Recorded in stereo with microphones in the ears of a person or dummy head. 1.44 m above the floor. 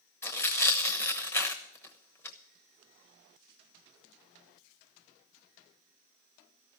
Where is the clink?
I don't hear a clink.